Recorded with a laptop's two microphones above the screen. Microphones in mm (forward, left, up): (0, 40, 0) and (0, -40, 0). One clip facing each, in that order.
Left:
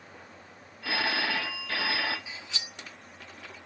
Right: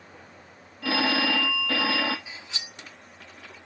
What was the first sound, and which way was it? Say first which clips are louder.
A phone ringing: right 5 dB; 80° right.